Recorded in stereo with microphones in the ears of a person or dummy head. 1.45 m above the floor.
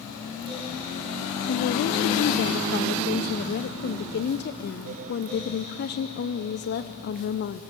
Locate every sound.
1.5 s a woman speaking: 55° left (ahead or behind), 0.8 m